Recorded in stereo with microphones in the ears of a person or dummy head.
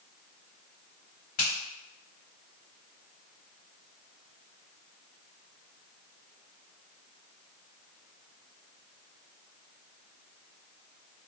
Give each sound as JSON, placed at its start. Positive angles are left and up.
{"t": 1.4, "sound": "a finger snap", "side_deg": 50, "distance_m": 1.4}